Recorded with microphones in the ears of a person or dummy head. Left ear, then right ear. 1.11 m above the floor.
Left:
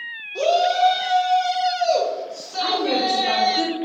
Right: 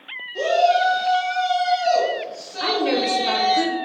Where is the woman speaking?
45° right (ahead or behind), 0.8 m.